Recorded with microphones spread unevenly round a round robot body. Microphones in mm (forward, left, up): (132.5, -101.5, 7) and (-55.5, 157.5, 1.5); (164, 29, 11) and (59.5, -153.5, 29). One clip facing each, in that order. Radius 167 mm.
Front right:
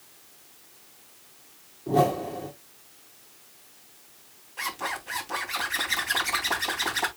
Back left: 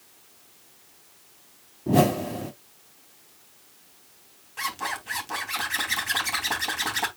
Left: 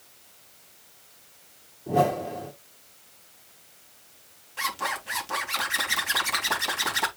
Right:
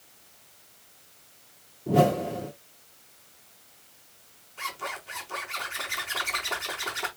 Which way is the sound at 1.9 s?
175° left.